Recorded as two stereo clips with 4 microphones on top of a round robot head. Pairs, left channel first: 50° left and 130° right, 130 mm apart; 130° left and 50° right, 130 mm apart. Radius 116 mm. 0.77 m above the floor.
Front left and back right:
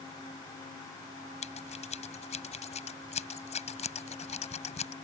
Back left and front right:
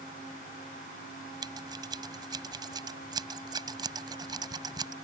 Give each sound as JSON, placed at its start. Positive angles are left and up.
{"t": 1.4, "sound": "scissors", "azimuth_deg": 10}